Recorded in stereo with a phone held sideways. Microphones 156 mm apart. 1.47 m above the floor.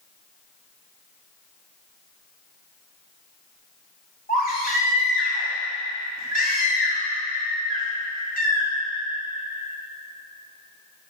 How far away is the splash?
I don't hear a splash.